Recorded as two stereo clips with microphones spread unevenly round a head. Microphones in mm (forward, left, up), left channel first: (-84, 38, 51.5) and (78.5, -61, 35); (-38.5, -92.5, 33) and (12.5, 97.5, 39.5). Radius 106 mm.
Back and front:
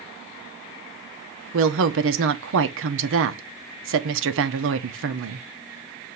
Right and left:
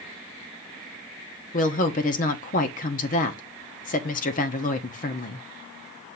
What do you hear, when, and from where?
1.5 s a woman speaking: 50° right, 0.9 m